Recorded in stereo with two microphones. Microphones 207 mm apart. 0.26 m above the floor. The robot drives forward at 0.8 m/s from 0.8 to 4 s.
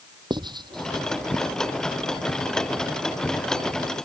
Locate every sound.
0.3 s writing: 20° right (ahead or behind); by 1.7 s 15° right (ahead or behind)